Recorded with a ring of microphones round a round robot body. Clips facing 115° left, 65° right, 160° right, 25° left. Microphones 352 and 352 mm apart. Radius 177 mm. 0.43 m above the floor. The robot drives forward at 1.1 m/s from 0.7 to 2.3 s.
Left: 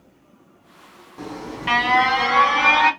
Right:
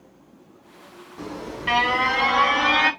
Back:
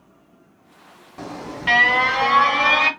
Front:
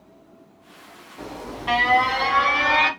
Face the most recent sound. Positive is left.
turn(degrees=-175)